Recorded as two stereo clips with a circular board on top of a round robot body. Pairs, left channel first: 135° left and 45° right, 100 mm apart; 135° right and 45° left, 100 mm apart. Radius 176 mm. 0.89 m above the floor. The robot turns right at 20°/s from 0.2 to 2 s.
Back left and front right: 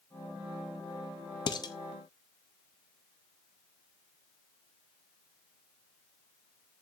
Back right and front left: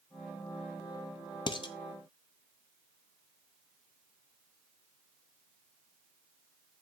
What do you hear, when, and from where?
1.5 s dishes clattering: straight behind, 1.0 m; by 1.7 s 175° right, 1.0 m